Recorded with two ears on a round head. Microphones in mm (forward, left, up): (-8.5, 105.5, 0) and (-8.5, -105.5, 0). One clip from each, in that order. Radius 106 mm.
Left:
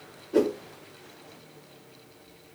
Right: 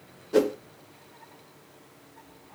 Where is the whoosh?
85° right, 0.9 m.